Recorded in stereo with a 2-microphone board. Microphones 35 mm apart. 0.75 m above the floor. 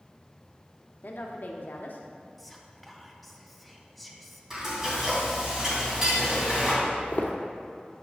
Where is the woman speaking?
60° left (ahead or behind), 1.1 m.